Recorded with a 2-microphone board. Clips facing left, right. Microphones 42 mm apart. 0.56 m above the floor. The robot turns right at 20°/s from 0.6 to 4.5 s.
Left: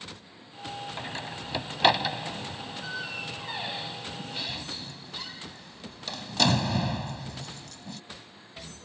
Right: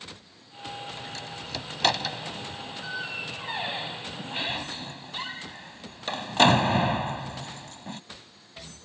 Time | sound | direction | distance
1.0 | a door slam | 35° left (ahead or behind) | ?